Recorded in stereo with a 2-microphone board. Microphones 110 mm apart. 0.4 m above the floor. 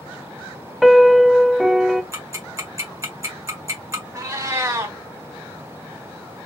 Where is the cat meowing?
30° right (ahead or behind), 1.5 m.